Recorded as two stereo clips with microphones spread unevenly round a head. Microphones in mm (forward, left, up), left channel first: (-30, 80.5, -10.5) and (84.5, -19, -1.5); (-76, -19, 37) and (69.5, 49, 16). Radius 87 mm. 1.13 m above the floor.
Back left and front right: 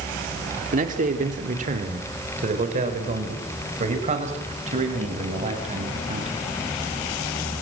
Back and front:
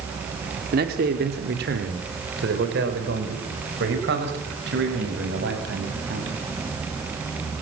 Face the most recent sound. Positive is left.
turn(degrees=0)